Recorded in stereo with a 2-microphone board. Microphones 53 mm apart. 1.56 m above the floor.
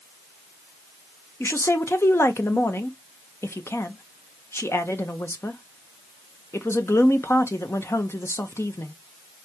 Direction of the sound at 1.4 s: 55° left (ahead or behind).